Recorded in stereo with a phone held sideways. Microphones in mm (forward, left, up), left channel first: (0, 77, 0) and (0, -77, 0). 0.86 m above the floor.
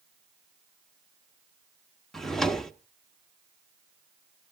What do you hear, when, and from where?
2.1 s a drawer: centre (ahead or behind), 0.9 m